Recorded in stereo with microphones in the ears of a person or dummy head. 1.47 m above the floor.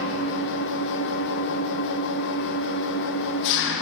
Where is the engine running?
65° left (ahead or behind), 0.8 m.